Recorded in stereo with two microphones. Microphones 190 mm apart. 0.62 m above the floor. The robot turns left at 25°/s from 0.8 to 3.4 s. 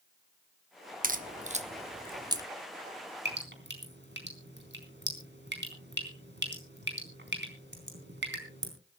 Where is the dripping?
60° right (ahead or behind), 4 m; by 8.7 s 65° right (ahead or behind), 4 m.